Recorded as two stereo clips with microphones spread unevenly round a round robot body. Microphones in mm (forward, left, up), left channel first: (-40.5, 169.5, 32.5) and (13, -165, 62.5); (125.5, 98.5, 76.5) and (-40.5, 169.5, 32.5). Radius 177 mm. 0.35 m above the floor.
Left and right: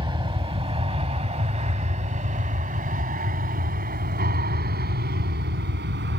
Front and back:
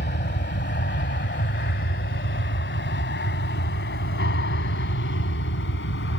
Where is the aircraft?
5° right; by 6.2 s 20° right.